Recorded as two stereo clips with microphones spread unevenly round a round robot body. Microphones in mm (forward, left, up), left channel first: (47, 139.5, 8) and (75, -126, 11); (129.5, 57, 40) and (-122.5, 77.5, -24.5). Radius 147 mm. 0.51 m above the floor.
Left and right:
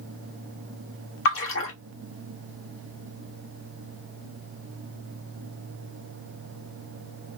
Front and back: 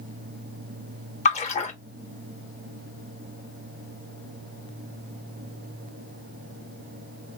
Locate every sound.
1.2 s a splash: 65° left, 1.4 m